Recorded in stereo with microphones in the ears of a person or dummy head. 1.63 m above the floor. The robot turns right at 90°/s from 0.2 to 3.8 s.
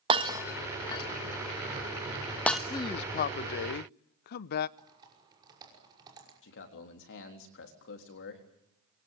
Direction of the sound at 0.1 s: 30° right (ahead or behind).